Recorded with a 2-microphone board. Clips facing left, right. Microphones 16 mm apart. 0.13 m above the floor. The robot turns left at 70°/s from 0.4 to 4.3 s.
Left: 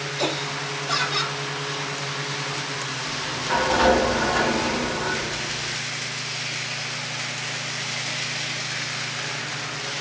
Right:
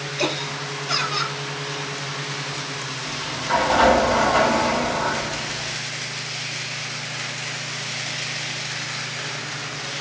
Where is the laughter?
115° right, 3 m; by 1.4 s 175° left, 3 m.